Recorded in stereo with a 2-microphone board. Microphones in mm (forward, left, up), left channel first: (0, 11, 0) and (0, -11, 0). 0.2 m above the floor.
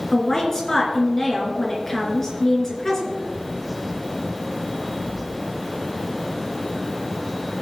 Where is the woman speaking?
20° left (ahead or behind), 2.5 m.